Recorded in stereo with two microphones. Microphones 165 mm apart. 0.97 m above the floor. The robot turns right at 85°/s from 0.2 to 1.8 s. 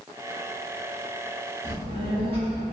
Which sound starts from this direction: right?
A child speaking, at 1.6 s.